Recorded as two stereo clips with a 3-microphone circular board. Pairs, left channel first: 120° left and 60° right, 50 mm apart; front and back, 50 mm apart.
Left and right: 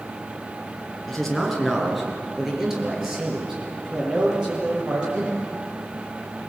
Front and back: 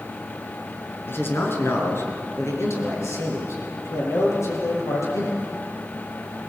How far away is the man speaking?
About 5 m.